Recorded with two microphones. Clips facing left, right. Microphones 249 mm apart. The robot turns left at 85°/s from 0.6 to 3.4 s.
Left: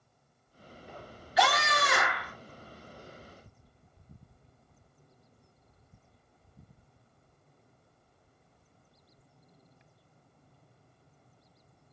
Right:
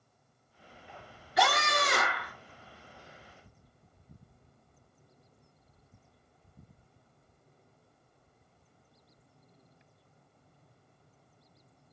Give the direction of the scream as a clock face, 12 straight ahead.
2 o'clock.